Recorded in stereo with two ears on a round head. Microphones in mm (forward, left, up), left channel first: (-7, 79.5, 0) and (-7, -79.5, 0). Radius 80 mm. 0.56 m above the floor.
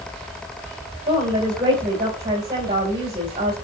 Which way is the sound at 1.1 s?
25° right (ahead or behind).